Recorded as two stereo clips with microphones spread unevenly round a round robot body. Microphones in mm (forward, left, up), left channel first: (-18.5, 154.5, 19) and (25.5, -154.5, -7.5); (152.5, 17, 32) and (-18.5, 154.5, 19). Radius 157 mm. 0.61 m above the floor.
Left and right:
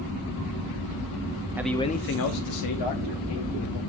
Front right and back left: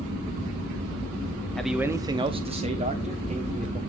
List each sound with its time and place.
1.6 s a man speaking: 130° right, 0.7 m; by 3.8 s 80° left, 2 m